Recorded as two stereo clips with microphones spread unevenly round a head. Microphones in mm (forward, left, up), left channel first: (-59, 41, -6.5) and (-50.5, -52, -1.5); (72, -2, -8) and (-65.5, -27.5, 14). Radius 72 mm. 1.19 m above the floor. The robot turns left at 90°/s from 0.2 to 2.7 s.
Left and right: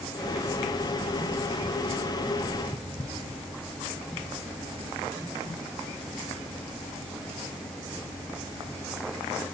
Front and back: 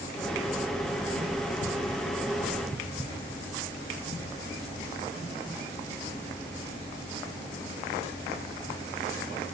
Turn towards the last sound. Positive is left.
No sound to turn to.